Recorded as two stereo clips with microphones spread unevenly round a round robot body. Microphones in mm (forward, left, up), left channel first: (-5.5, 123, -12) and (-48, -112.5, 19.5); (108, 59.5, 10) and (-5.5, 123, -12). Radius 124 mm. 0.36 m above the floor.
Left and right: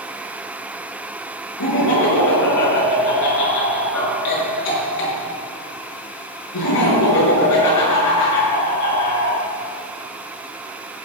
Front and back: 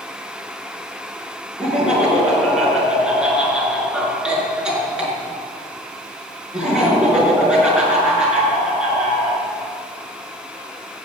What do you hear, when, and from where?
1.6 s laughter: 70° left, 6 m